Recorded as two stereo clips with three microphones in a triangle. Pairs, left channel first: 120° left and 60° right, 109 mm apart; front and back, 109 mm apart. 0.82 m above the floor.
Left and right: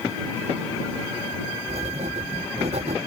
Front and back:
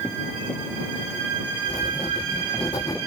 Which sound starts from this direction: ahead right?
Writing, at 1.7 s.